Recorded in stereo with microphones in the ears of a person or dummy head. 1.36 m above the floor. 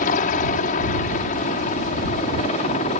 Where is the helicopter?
50° left (ahead or behind); by 3.0 s 40° left (ahead or behind).